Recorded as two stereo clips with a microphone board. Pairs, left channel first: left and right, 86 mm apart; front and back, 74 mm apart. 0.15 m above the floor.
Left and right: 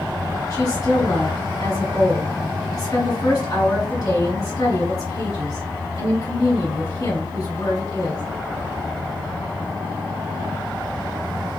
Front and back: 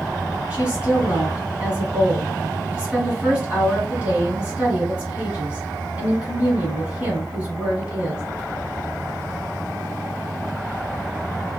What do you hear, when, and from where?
0.5 s a woman speaking: 110° left, 2.5 m